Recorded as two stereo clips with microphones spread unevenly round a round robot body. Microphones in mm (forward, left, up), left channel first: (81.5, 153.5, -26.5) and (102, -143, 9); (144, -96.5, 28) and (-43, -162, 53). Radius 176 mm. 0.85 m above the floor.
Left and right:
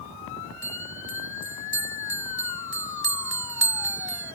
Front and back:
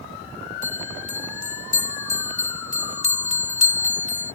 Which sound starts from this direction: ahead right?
A bell, at 0.6 s.